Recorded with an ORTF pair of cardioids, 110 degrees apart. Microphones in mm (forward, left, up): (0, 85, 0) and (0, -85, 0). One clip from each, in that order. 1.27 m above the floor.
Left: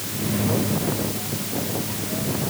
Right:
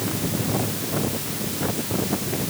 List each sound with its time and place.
Only background noise.